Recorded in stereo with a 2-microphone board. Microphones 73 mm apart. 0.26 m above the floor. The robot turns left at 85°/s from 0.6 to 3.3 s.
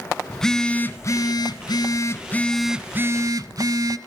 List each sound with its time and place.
0.3 s a phone buzzing: 170° left, 0.8 m; by 4.0 s 60° right, 0.8 m